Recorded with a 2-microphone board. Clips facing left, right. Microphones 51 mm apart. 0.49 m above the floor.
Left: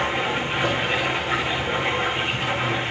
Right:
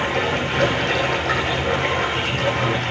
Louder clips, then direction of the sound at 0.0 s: Right 2 dB; 85° right.